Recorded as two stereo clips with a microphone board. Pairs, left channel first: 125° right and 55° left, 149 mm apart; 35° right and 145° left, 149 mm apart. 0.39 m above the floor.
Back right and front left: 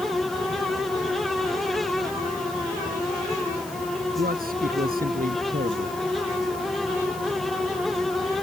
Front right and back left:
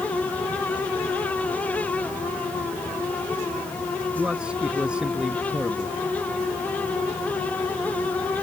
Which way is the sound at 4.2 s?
65° left.